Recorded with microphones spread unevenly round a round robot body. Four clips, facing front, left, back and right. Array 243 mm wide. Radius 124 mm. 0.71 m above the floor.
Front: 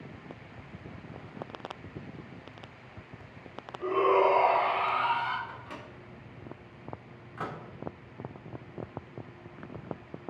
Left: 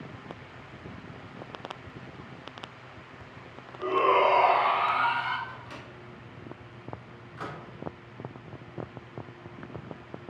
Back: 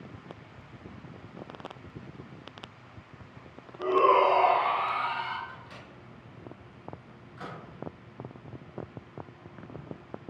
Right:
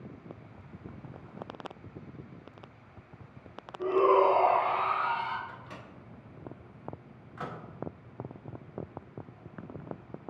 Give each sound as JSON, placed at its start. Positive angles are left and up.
{"t": 3.8, "sound": "a shout", "azimuth_deg": 170, "distance_m": 1.6}
{"t": 5.5, "sound": "a microwave", "azimuth_deg": 5, "distance_m": 1.8}